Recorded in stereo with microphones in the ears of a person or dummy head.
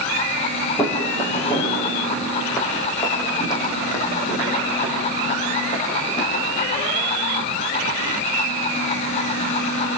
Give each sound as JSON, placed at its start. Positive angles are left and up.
{"t": 0.8, "sound": "footsteps", "side_deg": 20, "distance_m": 4.5}